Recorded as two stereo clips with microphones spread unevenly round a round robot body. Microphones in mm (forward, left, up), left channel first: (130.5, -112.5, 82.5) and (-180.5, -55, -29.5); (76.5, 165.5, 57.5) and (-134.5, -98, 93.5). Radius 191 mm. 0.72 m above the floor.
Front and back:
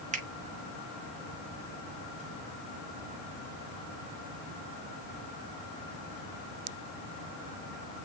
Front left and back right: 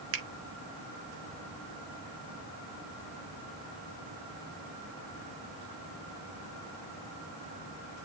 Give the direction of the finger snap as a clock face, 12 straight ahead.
6 o'clock.